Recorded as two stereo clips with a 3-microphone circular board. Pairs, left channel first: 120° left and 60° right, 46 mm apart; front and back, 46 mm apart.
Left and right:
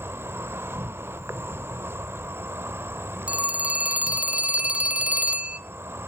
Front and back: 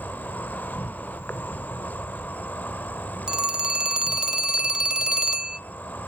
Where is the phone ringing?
110° right, 0.5 m.